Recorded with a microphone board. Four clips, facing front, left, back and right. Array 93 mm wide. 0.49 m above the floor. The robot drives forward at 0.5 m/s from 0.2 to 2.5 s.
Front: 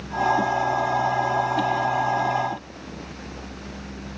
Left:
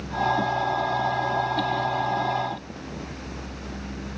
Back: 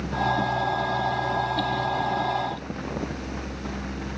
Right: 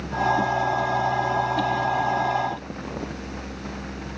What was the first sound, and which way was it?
Only background noise.